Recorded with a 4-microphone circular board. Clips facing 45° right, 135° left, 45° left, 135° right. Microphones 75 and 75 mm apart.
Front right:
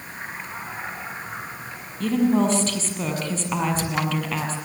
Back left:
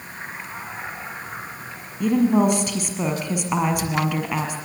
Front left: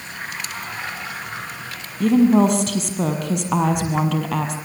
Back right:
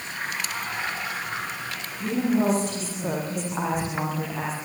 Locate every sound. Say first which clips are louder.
2.0 s a woman speaking: back left 2 dB, front left 9 dB; 60° left, 5.5 m